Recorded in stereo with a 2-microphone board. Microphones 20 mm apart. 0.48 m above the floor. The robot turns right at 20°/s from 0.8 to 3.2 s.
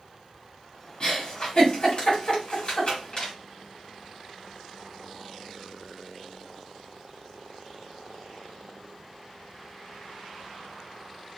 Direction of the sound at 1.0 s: 50° left (ahead or behind).